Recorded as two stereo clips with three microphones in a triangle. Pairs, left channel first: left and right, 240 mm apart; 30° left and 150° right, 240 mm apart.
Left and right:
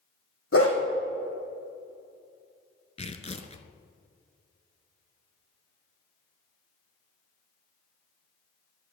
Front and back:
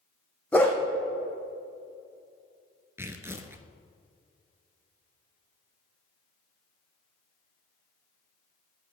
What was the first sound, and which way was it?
A dog barking, 115° left.